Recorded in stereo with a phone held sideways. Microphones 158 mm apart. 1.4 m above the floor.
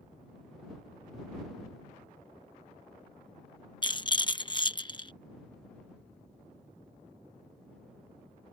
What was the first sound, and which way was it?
A rattle, 30° left (ahead or behind).